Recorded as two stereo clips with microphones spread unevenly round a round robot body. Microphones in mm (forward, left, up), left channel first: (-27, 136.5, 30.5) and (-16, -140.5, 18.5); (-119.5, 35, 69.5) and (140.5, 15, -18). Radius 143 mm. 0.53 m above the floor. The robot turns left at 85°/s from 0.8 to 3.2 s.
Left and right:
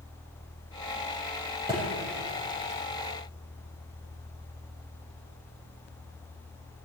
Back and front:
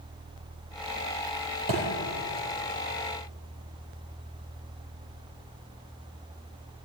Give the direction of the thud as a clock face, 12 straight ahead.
12 o'clock.